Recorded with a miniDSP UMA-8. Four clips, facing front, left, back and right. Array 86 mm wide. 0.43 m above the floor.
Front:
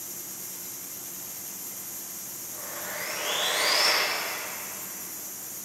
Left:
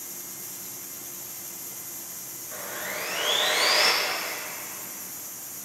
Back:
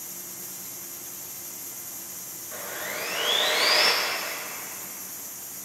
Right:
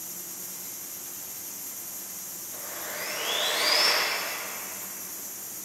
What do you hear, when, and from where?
2.5 s sawing: 135° left, 6.5 m